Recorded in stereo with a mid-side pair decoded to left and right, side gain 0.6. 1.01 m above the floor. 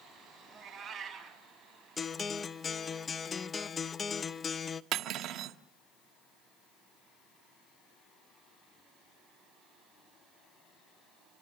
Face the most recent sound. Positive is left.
turn(degrees=-60)